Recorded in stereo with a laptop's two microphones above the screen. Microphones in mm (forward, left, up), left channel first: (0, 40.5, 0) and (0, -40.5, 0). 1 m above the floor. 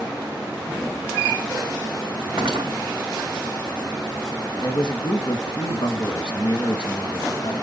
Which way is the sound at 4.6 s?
65° left (ahead or behind).